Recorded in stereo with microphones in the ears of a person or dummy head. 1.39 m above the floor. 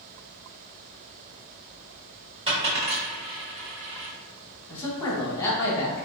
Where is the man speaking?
15° left (ahead or behind), 1.6 m.